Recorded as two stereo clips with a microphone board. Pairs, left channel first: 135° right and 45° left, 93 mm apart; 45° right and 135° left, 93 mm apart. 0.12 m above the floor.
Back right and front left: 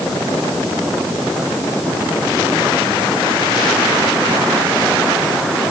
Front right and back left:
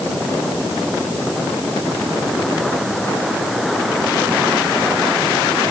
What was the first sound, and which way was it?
Only background noise.